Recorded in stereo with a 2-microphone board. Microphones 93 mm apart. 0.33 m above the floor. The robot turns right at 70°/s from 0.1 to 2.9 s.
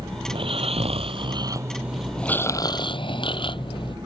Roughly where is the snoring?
Behind right.